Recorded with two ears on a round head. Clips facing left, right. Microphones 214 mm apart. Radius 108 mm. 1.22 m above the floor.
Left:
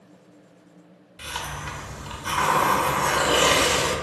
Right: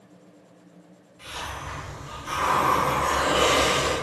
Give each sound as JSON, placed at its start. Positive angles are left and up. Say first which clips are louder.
{"t": 1.2, "sound": "a hiss", "louder": "left 2 dB", "side_deg": 80, "distance_m": 1.0}